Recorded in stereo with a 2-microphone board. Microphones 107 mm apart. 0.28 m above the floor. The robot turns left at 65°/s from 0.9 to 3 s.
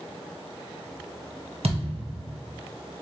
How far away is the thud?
About 1.4 m.